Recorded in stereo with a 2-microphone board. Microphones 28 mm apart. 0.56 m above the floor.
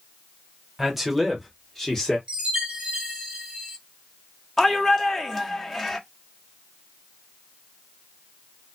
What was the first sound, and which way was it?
A man speaking, 10° right (ahead or behind).